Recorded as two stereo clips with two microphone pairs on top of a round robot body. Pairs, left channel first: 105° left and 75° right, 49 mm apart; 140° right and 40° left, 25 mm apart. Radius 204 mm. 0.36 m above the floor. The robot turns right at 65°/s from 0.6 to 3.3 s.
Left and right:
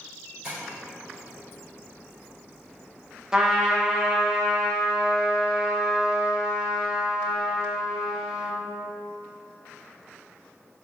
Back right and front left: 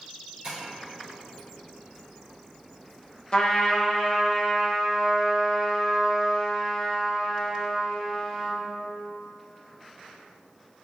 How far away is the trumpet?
About 0.8 m.